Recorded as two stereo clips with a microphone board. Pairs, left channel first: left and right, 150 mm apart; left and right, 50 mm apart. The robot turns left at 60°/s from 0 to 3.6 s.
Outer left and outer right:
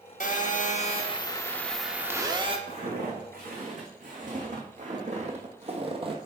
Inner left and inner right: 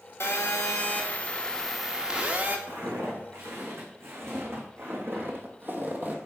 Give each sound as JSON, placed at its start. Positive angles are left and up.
{"t": 0.2, "sound": "a phone buzzing", "azimuth_deg": 95, "distance_m": 0.9}
{"t": 2.7, "sound": "footsteps", "side_deg": -50, "distance_m": 3.5}